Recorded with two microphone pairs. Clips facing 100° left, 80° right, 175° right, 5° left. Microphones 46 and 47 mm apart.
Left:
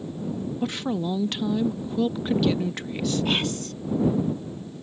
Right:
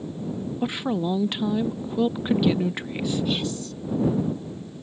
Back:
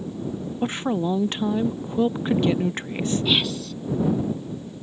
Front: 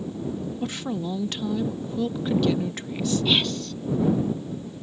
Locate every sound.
0.6 s a woman speaking: 145° right
3.2 s whispering: 100° left